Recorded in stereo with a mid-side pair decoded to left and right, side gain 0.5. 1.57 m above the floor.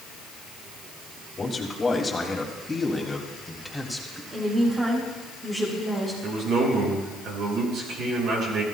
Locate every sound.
1.4 s a man speaking: 25° left, 3 m; by 4.2 s straight ahead, 3 m
4.3 s a woman speaking: 25° right, 4.5 m
6.2 s a man speaking: 70° right, 6.5 m